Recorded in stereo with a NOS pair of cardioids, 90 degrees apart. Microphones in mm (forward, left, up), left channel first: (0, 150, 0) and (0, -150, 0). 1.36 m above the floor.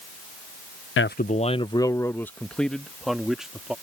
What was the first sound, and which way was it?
A man speaking, 45° left.